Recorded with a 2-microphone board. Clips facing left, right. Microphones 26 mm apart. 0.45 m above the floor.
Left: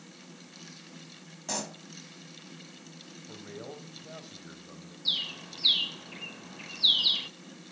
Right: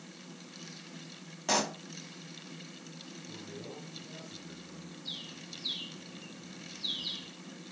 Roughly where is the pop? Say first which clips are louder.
Right 6 dB; right.